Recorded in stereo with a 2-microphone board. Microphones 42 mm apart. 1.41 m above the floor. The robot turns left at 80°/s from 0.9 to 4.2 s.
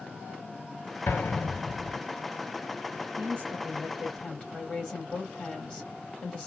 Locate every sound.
1.1 s an explosion: 55° left (ahead or behind), 2.5 m; by 2.0 s 10° right (ahead or behind), 2.5 m
3.2 s a woman speaking: 120° right, 2.5 m; by 6.5 s 155° left, 2.5 m